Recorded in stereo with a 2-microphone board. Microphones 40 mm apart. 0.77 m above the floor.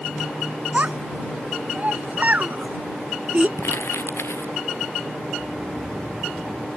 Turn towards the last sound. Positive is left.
turn(degrees=10)  # may be behind; listen again after turning